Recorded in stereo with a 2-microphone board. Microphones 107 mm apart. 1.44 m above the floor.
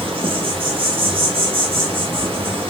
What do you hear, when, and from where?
0.0 s an insect: 55° right (ahead or behind), 0.7 m